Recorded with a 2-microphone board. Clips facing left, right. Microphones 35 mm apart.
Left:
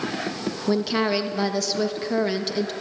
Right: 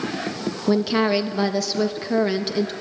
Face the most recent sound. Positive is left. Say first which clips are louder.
# right 3 dB
turn(degrees=-5)  # may be behind; listen again after turning